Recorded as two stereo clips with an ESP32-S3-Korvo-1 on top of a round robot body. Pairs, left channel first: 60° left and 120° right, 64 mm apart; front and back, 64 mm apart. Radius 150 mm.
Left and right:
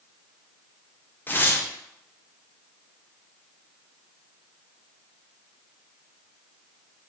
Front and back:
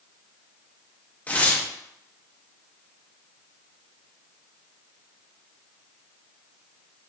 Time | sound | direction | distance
1.3 | tearing paper | 45° left | 0.9 m